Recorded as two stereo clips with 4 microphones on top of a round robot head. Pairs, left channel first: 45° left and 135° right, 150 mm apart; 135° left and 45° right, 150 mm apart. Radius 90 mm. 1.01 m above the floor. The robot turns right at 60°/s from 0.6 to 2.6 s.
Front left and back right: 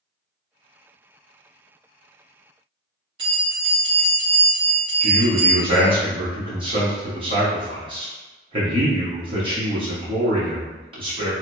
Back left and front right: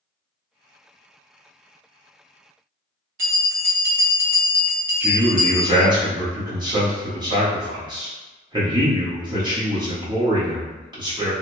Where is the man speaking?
95° right, 1.1 m.